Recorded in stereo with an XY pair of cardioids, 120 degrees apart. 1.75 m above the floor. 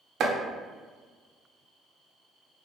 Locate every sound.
0.2 s chopping: 60° right, 0.7 m